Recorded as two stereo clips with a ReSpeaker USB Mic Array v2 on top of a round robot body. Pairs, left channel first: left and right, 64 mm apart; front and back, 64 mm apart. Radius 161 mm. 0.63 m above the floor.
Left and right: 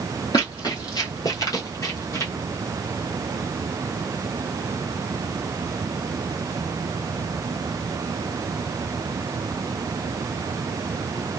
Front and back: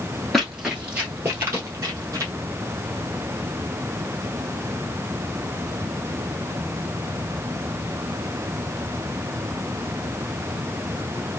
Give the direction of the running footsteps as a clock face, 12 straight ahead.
9 o'clock.